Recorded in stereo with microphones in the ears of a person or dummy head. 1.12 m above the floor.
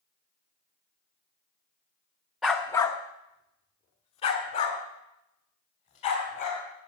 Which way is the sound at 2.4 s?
Centre (ahead or behind).